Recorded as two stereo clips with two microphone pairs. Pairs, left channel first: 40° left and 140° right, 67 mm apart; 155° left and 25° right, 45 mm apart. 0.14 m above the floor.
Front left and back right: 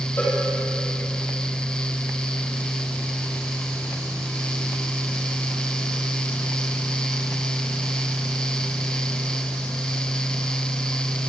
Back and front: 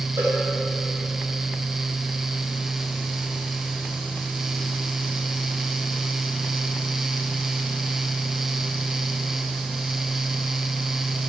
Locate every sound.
0.2 s a cowbell: 15° right, 5 m